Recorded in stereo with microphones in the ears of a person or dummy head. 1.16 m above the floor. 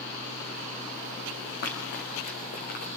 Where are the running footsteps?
60° left (ahead or behind), 5 m; by 2.9 s 55° left (ahead or behind), 5.5 m.